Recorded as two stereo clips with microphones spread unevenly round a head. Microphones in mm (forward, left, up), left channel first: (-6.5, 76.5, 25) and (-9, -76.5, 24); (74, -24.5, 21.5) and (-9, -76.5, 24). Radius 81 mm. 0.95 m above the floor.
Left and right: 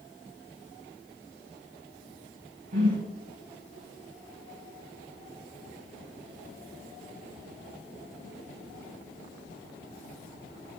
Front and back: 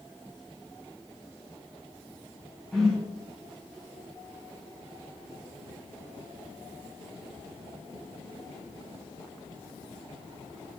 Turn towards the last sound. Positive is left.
turn(degrees=-55)